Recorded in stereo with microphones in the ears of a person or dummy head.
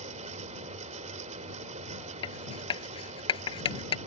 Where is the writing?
30° left (ahead or behind).